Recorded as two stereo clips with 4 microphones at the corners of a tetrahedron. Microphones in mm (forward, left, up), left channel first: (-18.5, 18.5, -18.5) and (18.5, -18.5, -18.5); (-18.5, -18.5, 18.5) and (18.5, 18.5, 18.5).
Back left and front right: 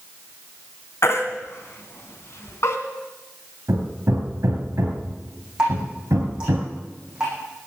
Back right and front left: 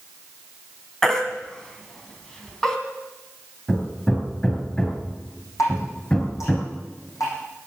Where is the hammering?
60° right, 3 m.